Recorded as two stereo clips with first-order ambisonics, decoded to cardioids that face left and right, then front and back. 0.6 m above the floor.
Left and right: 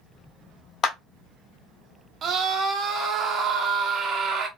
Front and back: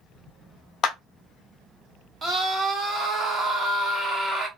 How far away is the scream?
About 0.8 m.